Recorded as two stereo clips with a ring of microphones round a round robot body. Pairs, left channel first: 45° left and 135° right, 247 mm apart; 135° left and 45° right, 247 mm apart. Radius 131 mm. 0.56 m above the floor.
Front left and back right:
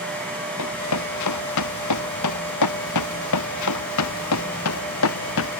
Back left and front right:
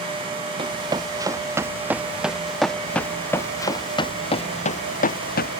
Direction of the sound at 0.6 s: 25° left.